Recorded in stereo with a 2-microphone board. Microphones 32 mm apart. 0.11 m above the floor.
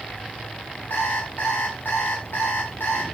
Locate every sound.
0.9 s an alarm clock: 85° left, 6 m